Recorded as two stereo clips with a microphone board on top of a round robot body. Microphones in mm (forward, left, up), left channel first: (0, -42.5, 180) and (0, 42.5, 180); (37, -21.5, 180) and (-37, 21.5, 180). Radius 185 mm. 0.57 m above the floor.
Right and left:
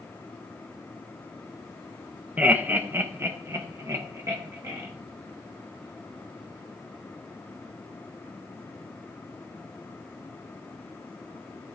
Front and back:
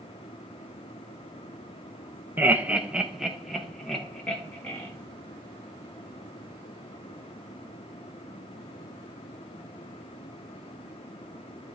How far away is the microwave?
I don't hear a microwave.